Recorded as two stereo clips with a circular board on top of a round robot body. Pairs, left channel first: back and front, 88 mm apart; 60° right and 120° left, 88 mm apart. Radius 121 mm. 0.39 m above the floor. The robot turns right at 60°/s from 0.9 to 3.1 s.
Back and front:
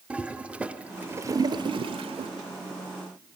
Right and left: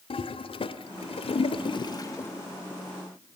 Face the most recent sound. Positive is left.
turn(degrees=55)